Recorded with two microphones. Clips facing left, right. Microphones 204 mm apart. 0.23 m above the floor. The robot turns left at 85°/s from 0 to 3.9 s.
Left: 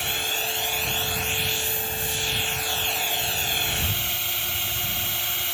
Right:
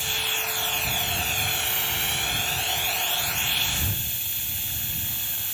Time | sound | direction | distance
0.0 | a drone | 70° left | ?